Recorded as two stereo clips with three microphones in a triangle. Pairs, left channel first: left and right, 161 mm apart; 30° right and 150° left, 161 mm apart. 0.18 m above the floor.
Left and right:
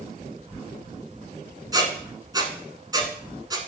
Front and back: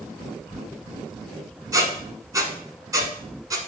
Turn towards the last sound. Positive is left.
turn(degrees=-145)